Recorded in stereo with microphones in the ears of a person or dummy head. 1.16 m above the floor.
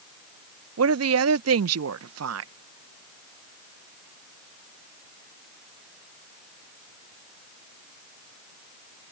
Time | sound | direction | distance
0.8 | a woman speaking | 70° right (ahead or behind) | ?